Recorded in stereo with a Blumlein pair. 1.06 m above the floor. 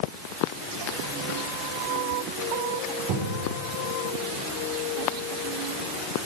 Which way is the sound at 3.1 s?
45° right.